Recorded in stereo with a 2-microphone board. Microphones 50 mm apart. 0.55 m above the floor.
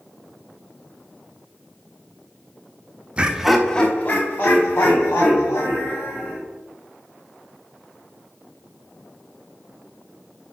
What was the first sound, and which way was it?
Laughter, 20° right (ahead or behind).